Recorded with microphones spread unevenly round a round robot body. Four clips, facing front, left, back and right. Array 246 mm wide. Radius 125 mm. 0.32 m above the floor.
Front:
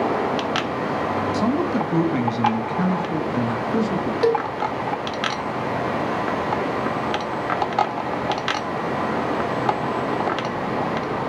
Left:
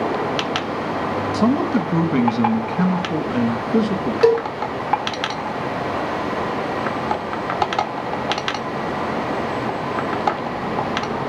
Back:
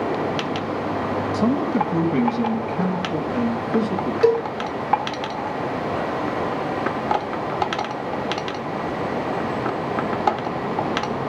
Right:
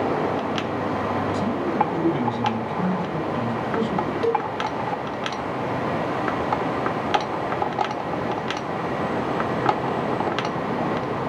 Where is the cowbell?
75° left, 1.6 m.